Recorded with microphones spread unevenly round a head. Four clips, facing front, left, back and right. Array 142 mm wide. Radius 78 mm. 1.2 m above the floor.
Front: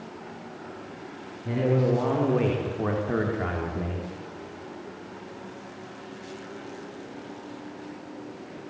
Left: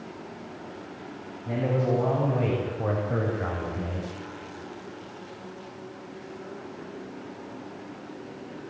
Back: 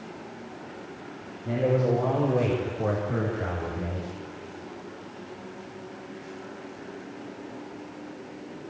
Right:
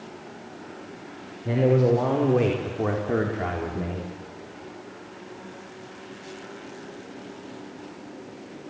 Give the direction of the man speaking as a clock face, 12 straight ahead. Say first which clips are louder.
Right 6 dB, even; 3 o'clock.